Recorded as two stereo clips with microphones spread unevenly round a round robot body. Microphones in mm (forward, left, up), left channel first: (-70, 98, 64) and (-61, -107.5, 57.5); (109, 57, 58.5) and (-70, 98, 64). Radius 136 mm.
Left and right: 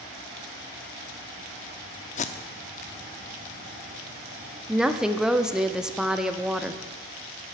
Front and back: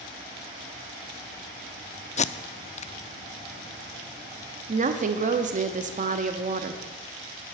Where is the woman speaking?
170° right, 0.7 m.